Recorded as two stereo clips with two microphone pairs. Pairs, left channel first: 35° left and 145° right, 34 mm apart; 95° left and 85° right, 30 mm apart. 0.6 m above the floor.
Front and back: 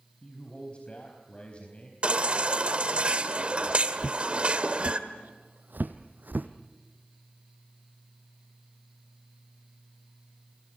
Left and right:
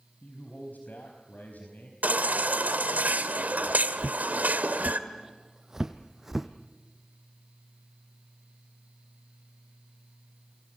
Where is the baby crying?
95° right, 1.6 m.